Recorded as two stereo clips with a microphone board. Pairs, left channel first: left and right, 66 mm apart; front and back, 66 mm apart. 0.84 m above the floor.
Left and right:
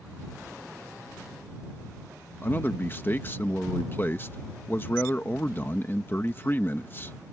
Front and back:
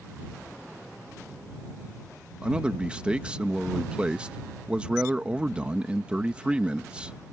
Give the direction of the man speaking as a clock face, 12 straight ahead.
8 o'clock.